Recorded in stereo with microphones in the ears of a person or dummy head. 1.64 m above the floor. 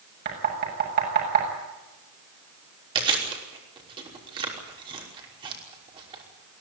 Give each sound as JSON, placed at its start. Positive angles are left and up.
{"t": 0.2, "sound": "knocking", "side_deg": -55, "distance_m": 7.5}
{"t": 3.0, "sound": "chewing", "side_deg": -25, "distance_m": 5.5}